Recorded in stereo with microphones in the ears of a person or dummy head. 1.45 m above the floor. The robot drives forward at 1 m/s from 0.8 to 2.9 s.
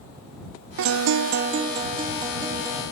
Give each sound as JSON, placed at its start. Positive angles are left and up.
{"t": 0.8, "sound": "a guitar", "side_deg": -65, "distance_m": 0.5}